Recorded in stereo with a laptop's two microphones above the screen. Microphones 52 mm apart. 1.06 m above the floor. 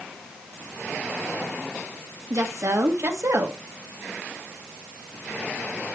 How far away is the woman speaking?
About 1.9 m.